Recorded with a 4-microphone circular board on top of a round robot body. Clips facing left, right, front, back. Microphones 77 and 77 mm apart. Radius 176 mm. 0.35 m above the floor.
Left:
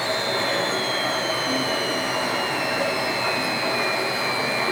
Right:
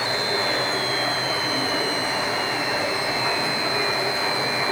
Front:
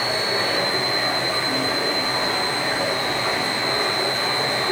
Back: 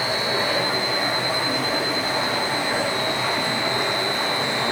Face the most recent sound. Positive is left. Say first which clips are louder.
# even, even
turn(degrees=105)